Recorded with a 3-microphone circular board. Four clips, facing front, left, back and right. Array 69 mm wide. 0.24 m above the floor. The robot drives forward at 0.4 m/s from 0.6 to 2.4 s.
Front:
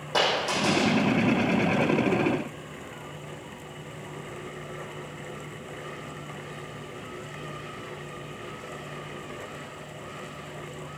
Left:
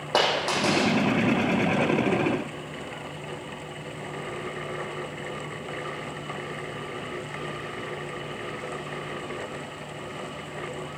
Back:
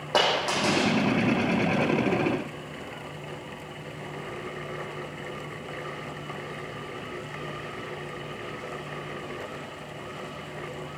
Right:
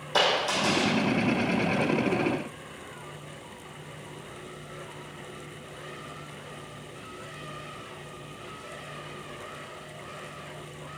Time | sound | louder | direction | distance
0.1 | a dropped coin | left 1 dB, back 1 dB | 125° left | 5 m